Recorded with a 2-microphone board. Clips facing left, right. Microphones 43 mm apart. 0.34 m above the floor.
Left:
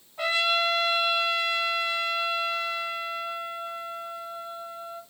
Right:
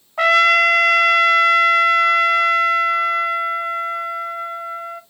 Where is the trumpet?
80° right, 0.8 m.